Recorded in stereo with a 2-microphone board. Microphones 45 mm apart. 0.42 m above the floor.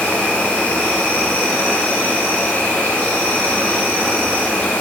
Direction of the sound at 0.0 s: 40° left (ahead or behind).